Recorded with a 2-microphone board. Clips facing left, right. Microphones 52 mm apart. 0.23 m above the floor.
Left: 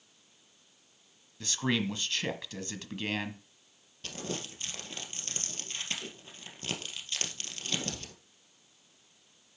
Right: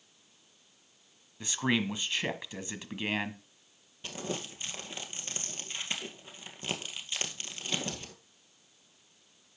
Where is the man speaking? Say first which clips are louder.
Right 1 dB; 15° right (ahead or behind), 1.2 m.